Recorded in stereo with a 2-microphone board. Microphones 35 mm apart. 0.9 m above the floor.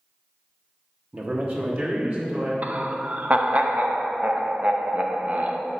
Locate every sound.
1.1 s a man speaking: 45° right (ahead or behind), 0.9 m; by 2.5 s 60° right (ahead or behind), 2.5 m
2.6 s laughter: 50° right (ahead or behind), 0.7 m